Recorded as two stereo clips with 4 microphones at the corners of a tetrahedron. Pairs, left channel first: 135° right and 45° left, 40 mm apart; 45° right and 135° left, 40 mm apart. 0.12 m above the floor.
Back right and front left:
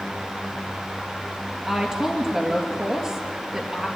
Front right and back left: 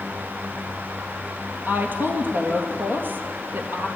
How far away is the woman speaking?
About 2.5 m.